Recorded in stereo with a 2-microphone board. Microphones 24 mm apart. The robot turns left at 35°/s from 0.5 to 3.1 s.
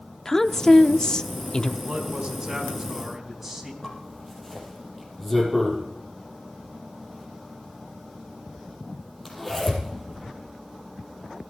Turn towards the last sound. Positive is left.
turn(degrees=5)  # may be behind; listen again after turning